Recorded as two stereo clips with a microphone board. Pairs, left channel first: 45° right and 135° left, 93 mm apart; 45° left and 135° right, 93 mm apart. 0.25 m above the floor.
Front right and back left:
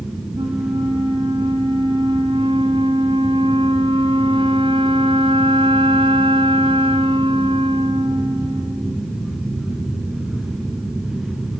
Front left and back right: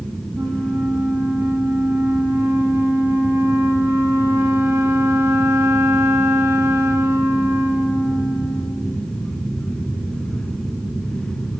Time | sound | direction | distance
0.3 | a flute | 160° left | 5.5 m